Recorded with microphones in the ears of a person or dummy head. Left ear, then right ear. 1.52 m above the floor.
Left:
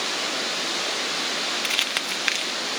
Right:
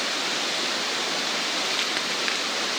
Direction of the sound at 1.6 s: 30° left (ahead or behind).